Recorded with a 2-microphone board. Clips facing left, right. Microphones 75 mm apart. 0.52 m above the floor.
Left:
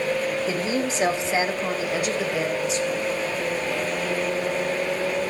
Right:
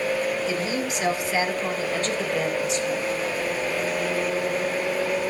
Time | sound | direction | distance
0.5 | a woman speaking | 40° left (ahead or behind) | 2 m